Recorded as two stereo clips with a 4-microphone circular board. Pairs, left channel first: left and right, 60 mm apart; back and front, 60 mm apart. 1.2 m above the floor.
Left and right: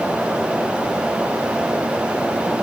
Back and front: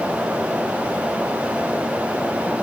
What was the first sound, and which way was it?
Only background noise.